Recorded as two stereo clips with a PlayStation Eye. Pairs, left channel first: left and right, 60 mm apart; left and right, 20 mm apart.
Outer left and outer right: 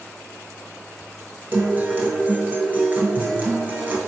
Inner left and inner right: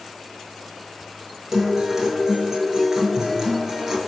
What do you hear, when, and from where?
1.5 s a guitar: 30° right (ahead or behind), 0.7 m